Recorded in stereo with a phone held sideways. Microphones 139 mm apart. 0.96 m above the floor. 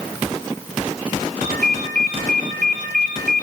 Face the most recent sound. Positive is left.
turn(degrees=-85)